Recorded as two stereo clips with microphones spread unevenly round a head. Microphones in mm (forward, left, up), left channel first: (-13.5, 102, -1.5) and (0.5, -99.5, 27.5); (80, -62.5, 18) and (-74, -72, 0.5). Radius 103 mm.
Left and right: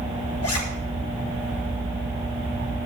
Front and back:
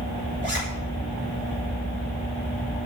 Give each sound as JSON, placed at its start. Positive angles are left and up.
{"t": 0.4, "sound": "a zipper", "azimuth_deg": 70, "distance_m": 7.0}